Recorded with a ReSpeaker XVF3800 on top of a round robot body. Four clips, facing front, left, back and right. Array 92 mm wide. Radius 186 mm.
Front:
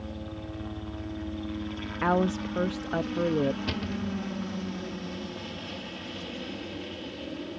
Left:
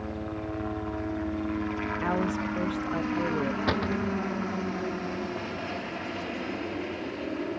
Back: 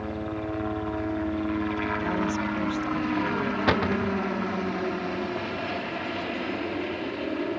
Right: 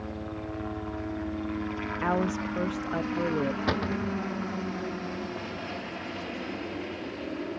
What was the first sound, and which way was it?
A helicopter, 175° left.